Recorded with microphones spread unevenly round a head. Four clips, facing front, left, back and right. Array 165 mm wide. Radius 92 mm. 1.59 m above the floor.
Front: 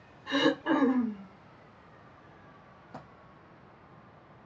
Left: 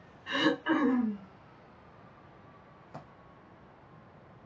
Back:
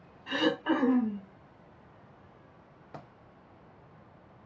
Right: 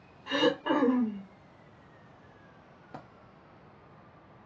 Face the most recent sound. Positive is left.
turn(degrees=-125)